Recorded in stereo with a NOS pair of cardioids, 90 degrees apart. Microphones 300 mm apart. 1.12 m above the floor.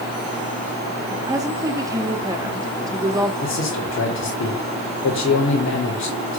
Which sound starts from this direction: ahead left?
A man speaking, at 3.4 s.